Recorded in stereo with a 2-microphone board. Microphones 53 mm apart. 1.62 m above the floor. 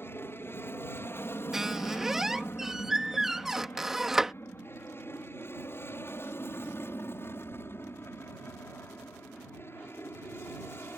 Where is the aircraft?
45° left (ahead or behind).